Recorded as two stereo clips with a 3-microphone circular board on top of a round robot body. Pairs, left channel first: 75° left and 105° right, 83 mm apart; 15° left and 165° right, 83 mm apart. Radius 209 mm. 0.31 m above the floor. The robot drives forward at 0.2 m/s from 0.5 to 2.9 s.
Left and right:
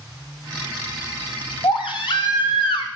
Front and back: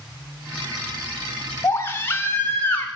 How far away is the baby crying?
About 1.9 m.